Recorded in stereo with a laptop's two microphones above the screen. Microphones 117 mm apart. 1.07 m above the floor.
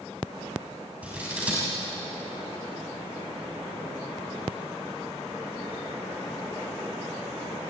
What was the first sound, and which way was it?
Scissors, 10° right (ahead or behind).